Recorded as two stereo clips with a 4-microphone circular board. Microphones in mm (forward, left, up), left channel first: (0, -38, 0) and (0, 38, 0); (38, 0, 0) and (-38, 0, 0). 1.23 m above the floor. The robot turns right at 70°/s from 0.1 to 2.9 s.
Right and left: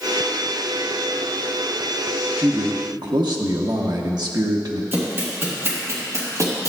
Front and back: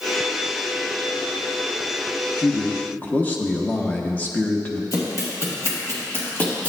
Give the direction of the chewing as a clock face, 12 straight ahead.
I don't hear chewing.